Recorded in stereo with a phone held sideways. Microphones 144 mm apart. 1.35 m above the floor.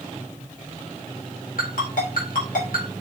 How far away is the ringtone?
About 4.5 m.